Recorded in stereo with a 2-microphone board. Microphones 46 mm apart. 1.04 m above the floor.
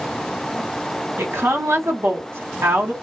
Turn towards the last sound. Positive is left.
turn(degrees=-70)  # may be behind; listen again after turning